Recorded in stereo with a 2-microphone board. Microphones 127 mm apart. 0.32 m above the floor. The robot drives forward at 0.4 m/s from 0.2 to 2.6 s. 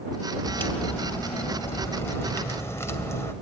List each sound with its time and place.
0.5 s a crack: 15° left (ahead or behind), 2.5 m; by 3.3 s 20° left (ahead or behind), 1.8 m